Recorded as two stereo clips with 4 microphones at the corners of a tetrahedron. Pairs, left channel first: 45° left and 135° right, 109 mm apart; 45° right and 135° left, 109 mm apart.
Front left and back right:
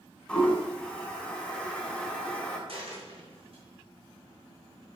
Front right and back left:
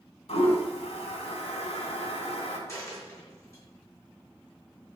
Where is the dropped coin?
105° right, 5 m.